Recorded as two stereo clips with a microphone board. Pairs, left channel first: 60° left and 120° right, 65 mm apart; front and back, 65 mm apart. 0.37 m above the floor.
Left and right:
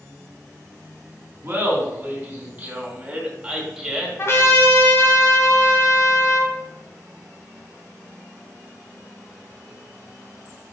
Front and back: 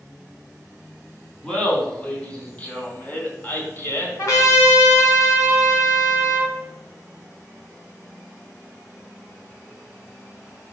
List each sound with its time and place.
1.4 s laughter: 75° right, 3 m; by 4.1 s 40° right, 1.9 m
4.2 s a trumpet: 20° left, 2 m